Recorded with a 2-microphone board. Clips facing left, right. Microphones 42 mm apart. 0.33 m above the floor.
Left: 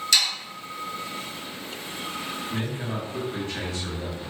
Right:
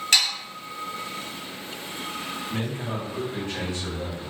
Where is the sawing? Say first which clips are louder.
Right 1 dB; 45° right (ahead or behind), 1.2 m.